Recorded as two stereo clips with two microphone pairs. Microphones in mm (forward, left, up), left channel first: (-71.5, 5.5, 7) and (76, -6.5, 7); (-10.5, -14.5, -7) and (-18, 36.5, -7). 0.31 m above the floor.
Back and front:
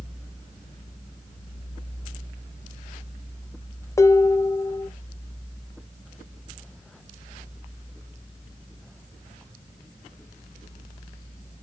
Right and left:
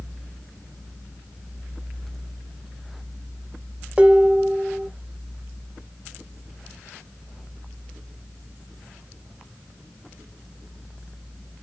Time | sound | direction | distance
4.0 | dishes clattering | 135° left | 0.6 m